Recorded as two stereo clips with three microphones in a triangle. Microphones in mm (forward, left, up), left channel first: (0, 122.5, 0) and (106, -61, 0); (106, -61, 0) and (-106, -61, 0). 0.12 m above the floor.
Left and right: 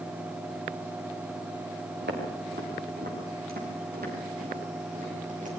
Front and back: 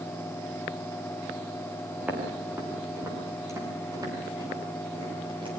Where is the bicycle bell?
No bicycle bell in this recording.